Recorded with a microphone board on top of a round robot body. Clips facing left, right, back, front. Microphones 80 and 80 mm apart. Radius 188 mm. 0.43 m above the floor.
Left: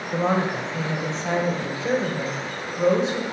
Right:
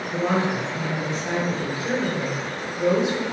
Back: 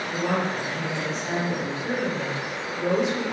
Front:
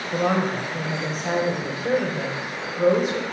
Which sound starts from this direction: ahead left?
A woman speaking, at 0.1 s.